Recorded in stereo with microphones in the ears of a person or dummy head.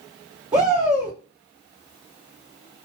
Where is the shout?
20° right (ahead or behind), 0.6 m.